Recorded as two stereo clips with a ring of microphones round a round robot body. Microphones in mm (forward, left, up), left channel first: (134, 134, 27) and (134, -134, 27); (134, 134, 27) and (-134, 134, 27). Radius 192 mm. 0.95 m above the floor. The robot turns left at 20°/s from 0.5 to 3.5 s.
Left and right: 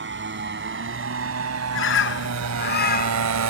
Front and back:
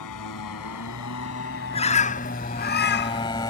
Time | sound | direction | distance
0.0 | a motorcycle | 45° right | ?
1.7 | a bird | 65° left | ?